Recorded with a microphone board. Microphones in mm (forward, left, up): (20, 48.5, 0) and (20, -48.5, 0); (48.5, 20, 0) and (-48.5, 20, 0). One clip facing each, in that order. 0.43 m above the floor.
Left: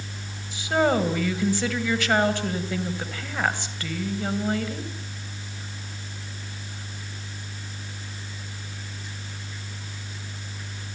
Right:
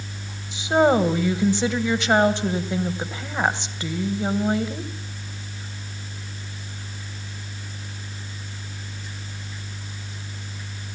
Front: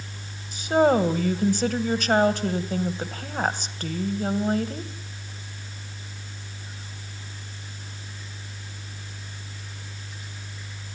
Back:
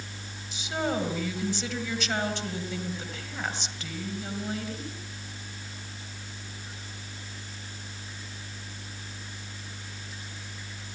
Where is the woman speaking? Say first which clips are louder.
Right 4 dB, front 11 dB; 25° right, 2 m.